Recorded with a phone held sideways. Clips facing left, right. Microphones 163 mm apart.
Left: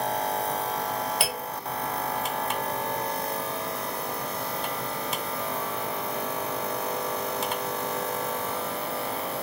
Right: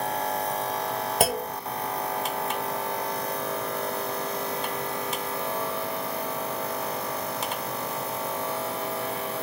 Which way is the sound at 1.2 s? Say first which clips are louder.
Right 6 dB; 40° right (ahead or behind).